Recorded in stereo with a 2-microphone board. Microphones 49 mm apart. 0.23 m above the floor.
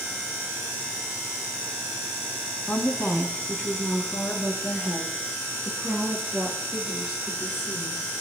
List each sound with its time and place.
2.7 s a woman speaking: 50° left (ahead or behind), 1.6 m; by 8.0 s 55° left (ahead or behind), 4.5 m